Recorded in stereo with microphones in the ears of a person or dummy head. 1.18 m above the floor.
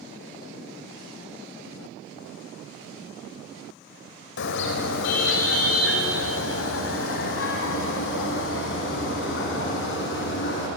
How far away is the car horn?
About 2.5 m.